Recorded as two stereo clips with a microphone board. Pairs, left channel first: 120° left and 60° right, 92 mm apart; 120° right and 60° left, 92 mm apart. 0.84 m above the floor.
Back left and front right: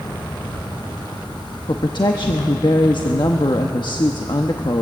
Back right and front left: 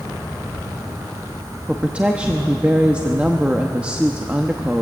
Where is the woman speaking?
135° left, 1.0 m.